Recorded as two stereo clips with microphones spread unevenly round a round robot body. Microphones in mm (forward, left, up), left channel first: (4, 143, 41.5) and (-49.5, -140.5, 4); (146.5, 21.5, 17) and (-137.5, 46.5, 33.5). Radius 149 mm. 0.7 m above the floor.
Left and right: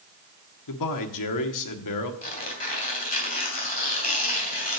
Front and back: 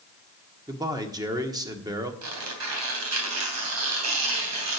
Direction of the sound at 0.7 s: 95° left.